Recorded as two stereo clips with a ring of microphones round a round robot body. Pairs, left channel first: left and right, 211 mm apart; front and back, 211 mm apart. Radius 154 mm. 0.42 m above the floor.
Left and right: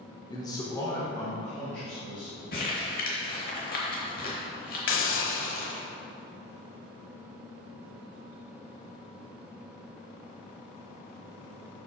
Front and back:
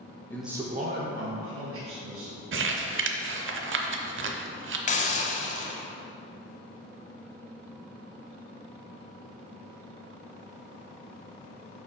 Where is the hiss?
60° left, 0.9 m.